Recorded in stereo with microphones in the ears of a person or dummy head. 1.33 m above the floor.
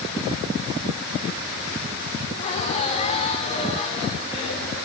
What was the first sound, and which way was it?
Laughter, 35° left (ahead or behind).